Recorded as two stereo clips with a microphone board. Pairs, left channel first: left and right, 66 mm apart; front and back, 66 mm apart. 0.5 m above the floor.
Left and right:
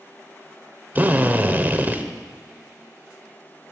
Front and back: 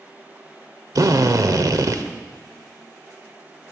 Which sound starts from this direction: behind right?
A drill, at 0.9 s.